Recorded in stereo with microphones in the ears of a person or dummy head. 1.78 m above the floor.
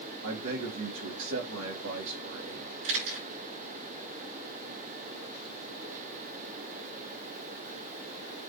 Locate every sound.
0.2 s a man speaking: 85° right, 3.5 m
2.8 s a camera shutter: 75° right (ahead or behind), 6.5 m